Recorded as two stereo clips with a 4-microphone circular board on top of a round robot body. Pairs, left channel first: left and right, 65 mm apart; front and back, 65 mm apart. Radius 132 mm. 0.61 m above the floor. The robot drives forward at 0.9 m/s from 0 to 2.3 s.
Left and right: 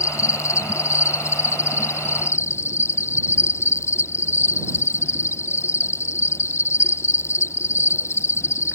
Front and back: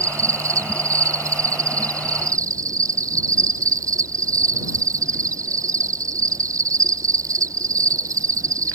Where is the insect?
135° left; by 8.8 s 140° left.